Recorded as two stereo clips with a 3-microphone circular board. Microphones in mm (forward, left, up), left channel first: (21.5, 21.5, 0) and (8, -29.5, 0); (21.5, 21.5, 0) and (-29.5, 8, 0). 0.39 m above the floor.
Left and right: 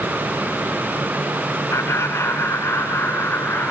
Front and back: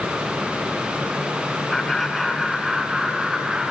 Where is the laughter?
100° left, 3.5 m; by 3.7 s 115° left, 4.5 m.